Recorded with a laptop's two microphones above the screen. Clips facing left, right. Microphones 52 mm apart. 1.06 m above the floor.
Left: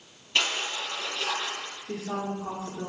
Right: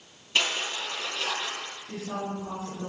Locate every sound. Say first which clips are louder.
0.3 s crushing: even; centre (ahead or behind), 4 m
1.9 s a woman speaking: left 2 dB; 80° left, 2.5 m